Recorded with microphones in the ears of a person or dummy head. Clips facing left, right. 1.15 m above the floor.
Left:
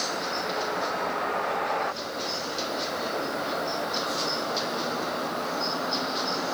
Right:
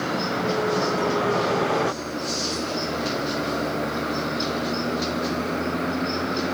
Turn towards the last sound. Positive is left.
turn(degrees=-30)  # may be behind; listen again after turning